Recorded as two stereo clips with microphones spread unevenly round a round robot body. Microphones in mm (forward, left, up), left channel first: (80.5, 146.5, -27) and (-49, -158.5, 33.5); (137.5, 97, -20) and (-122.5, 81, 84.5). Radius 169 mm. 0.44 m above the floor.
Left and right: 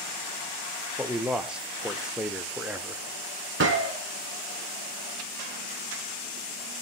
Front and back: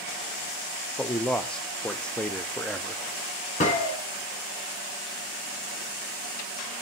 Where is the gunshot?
55° right, 2.5 m.